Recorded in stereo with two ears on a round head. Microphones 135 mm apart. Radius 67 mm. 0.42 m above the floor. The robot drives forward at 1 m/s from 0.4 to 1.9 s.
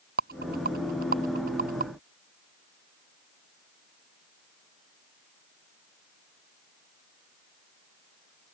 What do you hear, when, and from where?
0.2 s a rattle: 65° right (ahead or behind); by 1.9 s 55° right (ahead or behind)